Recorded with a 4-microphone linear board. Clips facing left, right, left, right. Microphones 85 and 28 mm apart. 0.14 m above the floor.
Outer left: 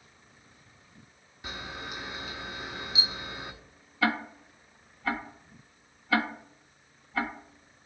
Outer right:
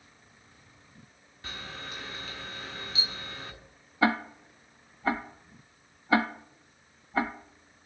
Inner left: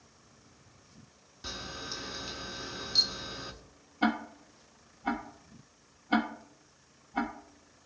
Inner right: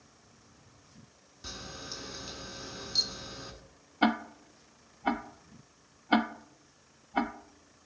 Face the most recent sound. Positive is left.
turn(degrees=-30)  # may be behind; listen again after turning